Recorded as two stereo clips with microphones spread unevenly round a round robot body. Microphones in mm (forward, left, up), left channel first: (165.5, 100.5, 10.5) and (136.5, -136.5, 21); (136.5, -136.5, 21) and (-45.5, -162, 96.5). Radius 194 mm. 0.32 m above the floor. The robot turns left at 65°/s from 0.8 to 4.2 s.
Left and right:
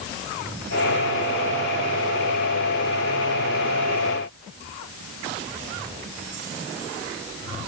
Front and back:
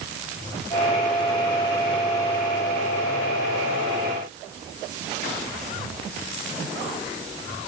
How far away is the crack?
I don't hear a crack.